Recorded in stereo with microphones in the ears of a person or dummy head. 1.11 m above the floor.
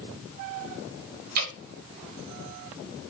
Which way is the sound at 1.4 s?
55° right (ahead or behind).